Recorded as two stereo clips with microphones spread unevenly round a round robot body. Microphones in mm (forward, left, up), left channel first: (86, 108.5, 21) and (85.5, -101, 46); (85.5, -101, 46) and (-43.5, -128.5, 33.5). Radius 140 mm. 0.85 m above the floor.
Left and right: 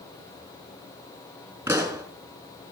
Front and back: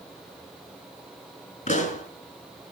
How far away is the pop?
About 5 m.